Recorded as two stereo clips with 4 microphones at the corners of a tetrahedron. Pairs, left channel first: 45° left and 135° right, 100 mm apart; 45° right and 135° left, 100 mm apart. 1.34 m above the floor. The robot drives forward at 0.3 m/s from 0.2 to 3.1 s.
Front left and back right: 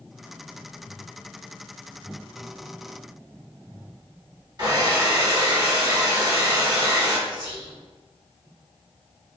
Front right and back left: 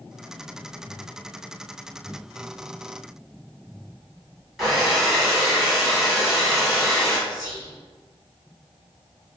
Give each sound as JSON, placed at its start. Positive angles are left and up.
{"t": 4.6, "sound": "a hair dryer", "azimuth_deg": -135, "distance_m": 1.6}
{"t": 7.3, "sound": "whispering", "azimuth_deg": 180, "distance_m": 1.9}